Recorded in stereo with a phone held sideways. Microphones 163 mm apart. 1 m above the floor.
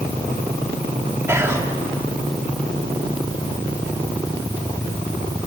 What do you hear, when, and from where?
1.3 s whispering: 15° right (ahead or behind), 1.8 m